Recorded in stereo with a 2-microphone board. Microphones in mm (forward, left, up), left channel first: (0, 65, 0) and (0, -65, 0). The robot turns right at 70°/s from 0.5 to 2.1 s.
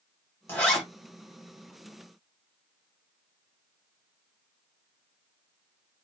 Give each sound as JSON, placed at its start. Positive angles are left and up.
{"t": 0.5, "sound": "a zipper", "side_deg": 15, "distance_m": 1.8}